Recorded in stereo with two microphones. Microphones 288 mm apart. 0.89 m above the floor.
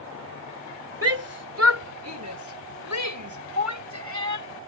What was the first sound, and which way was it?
A shout, 55° right (ahead or behind).